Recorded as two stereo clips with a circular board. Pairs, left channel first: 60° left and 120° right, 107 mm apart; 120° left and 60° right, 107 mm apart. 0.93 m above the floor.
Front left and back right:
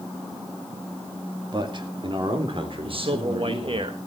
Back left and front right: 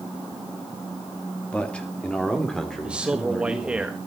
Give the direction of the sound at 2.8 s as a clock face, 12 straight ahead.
5 o'clock.